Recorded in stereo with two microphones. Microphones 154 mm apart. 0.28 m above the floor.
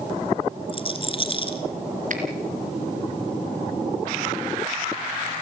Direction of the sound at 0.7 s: 35° left (ahead or behind).